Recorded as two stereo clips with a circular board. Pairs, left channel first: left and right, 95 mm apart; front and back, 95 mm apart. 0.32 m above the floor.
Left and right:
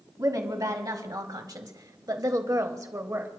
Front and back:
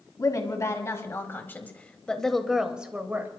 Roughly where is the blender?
I don't hear a blender.